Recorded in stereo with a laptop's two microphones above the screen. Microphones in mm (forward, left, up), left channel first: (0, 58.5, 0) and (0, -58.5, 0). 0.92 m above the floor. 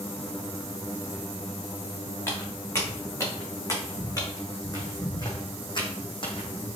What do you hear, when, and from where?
2.3 s footsteps: 25° left (ahead or behind), 3.5 m; by 6.8 s 50° left (ahead or behind), 1.9 m